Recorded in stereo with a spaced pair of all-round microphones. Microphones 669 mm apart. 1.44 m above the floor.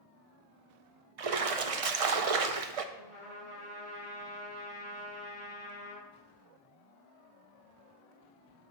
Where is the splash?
60° right (ahead or behind), 0.6 m.